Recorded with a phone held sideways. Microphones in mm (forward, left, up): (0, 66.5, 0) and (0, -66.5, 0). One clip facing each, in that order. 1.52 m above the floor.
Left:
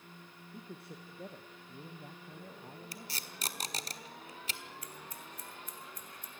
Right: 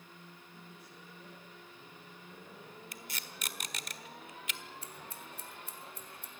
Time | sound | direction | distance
0.5 | a man speaking | 60° left (ahead or behind) | 1.5 m
2.9 | tape being pulled | 35° left (ahead or behind) | 1.3 m
4.8 | scissors | 30° right (ahead or behind) | 2.5 m